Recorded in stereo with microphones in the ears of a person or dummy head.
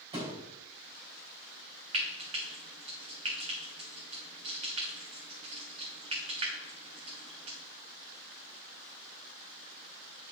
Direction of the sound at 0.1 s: 20° right (ahead or behind).